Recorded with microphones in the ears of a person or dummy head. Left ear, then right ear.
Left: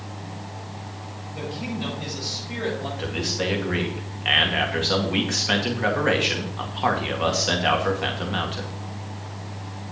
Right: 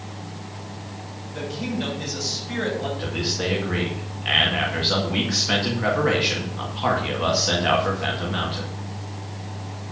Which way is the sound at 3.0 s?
25° left (ahead or behind).